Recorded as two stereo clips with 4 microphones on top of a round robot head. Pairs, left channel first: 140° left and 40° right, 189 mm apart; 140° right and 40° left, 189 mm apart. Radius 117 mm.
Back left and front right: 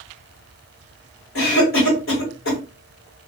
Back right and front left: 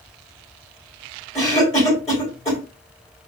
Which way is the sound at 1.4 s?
150° left.